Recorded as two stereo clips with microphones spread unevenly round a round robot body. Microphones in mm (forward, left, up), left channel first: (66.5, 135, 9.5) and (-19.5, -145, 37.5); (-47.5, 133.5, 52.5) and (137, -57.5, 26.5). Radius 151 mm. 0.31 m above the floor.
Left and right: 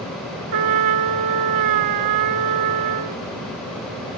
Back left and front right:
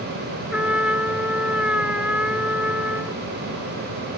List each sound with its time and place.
0.5 s a trumpet: 135° right